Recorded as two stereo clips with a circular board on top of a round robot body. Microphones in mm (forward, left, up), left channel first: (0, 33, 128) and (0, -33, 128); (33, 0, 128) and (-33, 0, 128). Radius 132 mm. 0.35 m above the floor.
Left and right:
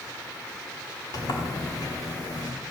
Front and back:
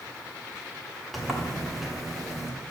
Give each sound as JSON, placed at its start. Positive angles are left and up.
{"t": 1.1, "sound": "a sliding door", "azimuth_deg": 90, "distance_m": 2.5}